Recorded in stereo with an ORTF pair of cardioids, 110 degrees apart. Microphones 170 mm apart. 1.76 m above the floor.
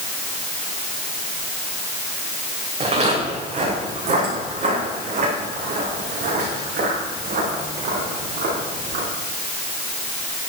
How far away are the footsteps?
About 7.5 m.